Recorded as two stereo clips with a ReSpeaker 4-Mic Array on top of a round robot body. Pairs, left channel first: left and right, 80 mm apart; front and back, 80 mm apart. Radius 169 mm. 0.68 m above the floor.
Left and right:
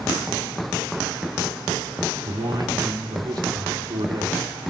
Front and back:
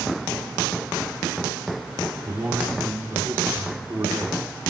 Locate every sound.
2.2 s a man speaking: 115° right, 2.5 m